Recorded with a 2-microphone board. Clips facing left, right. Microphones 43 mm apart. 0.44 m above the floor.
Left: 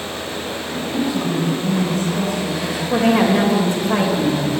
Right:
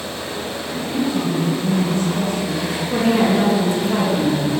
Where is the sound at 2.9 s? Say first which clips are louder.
Left 2 dB; 55° left (ahead or behind), 1.8 m.